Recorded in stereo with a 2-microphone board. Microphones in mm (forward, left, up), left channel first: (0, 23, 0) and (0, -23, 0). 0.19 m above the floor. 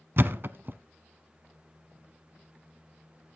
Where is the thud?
50° right (ahead or behind), 0.7 m.